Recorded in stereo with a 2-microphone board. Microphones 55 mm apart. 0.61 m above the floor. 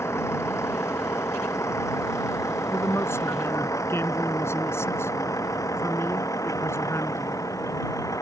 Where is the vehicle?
55° left (ahead or behind); by 8.2 s 85° left.